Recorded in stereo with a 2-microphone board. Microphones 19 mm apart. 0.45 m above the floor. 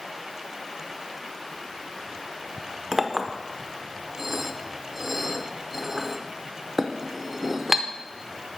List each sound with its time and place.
2.9 s a clink: 10° right (ahead or behind), 0.5 m